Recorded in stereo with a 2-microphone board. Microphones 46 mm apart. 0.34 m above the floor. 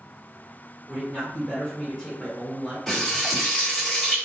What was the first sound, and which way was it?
A man speaking, centre (ahead or behind).